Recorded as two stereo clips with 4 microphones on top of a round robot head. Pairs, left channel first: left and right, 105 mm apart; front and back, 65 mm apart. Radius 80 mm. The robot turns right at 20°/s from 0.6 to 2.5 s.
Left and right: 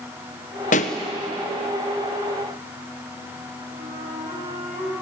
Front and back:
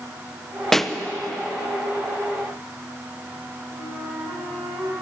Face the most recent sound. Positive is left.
turn(degrees=-125)